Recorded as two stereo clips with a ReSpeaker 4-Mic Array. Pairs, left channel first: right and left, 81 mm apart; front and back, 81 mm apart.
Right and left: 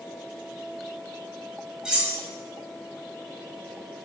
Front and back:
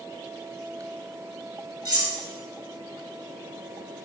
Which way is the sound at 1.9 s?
170° left.